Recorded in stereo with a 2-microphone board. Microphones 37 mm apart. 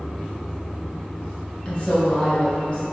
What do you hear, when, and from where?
1.6 s a woman speaking: 35° left (ahead or behind), 1.7 m